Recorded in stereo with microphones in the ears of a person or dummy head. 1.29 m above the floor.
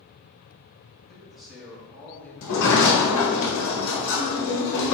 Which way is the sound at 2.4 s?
70° left (ahead or behind).